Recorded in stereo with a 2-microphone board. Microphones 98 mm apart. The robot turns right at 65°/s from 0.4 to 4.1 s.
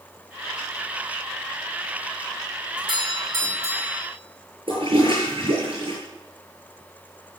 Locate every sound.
2.8 s a doorbell: 70° right, 3.5 m; by 4.1 s 15° left, 3.5 m
4.7 s a toilet flushing: 60° right (ahead or behind), 7.5 m